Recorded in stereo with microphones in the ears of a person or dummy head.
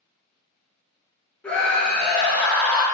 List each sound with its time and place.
1.4 s a scream: 10° left (ahead or behind), 0.6 m